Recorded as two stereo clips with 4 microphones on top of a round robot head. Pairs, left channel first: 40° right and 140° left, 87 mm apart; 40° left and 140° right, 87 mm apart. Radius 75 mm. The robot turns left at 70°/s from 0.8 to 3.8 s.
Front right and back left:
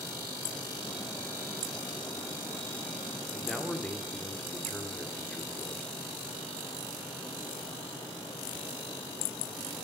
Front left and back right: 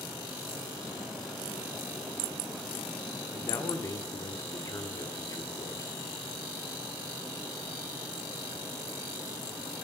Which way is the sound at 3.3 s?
65° left.